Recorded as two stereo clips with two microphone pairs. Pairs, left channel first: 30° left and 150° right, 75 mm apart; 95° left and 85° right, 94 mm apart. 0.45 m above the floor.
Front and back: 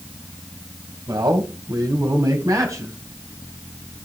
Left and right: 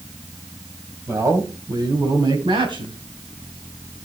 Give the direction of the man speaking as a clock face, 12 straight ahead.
5 o'clock.